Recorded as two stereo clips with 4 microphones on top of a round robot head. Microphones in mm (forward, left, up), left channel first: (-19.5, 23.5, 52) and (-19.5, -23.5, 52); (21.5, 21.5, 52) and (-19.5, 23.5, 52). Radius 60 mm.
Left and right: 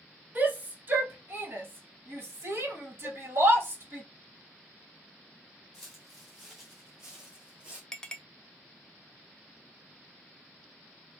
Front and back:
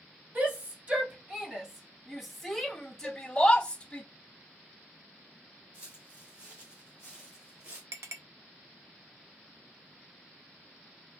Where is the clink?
165° left, 0.6 m.